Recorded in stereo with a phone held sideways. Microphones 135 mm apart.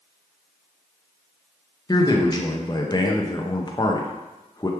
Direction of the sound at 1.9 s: 30° left (ahead or behind).